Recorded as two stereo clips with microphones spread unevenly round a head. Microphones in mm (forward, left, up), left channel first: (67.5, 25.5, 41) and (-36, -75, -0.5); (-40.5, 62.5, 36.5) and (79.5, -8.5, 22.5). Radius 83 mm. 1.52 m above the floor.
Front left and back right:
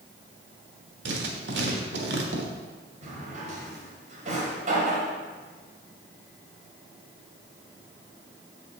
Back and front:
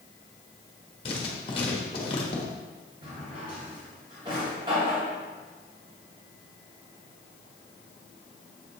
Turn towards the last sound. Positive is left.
turn(degrees=-95)